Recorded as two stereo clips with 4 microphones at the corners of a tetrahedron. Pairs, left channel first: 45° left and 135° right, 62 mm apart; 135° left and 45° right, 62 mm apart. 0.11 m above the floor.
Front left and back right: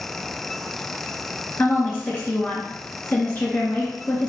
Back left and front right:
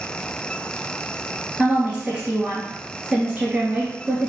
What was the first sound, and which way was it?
A woman speaking, 20° left.